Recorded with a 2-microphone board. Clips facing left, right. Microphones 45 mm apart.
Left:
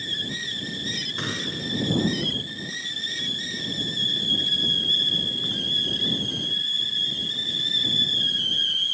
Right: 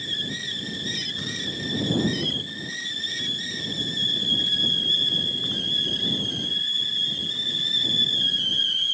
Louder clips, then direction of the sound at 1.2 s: Left 1 dB; 55° left (ahead or behind).